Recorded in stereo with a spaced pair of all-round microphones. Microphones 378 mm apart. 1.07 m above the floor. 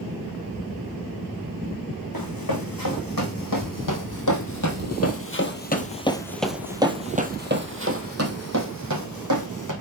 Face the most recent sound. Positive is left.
turn(degrees=-55)  # may be behind; listen again after turning